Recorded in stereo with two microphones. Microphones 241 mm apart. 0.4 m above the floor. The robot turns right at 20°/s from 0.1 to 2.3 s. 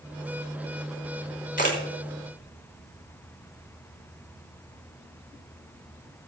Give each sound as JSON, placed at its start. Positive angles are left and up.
{"t": 1.6, "sound": "a camera shutter", "side_deg": 35, "distance_m": 3.5}